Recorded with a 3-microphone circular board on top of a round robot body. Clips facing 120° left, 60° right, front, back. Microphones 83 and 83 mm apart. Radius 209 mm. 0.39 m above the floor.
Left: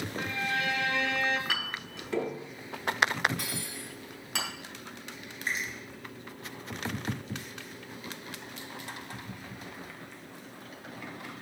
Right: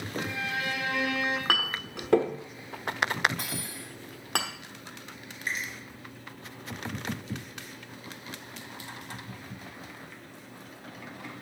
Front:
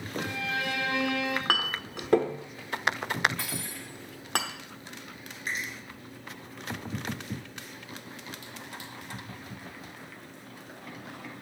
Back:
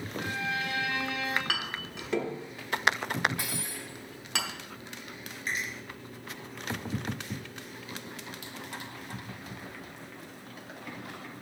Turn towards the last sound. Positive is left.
turn(degrees=60)